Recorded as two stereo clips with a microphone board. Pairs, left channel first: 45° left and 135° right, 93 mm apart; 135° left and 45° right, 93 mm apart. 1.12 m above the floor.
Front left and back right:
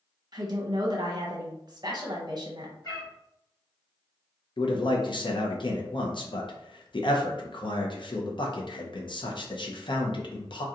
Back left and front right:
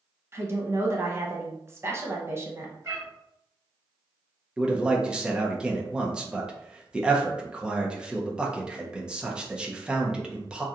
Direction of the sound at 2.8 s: 5° left.